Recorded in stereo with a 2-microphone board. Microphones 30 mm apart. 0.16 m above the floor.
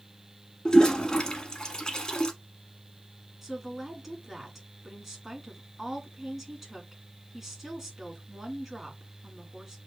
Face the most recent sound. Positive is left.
turn(degrees=-5)  # may be behind; listen again after turning